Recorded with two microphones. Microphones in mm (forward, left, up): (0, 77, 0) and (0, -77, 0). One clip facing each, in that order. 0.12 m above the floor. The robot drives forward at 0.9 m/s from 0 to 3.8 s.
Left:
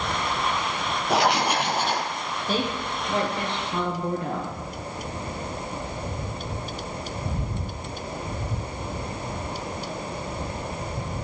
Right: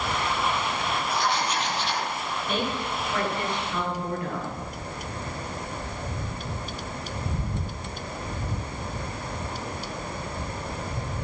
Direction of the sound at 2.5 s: 30° left (ahead or behind).